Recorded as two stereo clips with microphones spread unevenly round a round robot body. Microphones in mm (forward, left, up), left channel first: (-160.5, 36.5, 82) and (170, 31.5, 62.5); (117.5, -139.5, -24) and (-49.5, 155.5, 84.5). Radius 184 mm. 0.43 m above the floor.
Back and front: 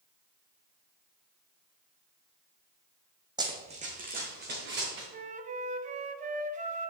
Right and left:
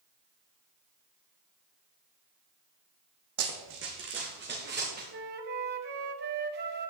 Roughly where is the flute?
Left.